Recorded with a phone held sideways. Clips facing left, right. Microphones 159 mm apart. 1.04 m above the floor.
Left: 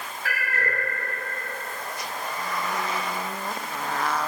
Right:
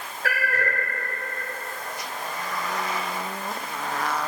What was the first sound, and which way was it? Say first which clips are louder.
A cat meowing: right 4 dB; 60° right (ahead or behind).